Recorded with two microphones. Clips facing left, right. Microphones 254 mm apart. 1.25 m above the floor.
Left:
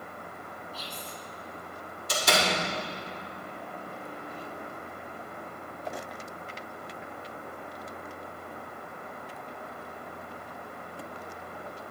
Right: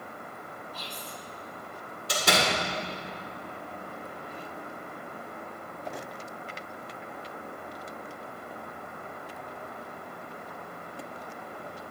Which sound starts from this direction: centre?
Whispering, at 0.7 s.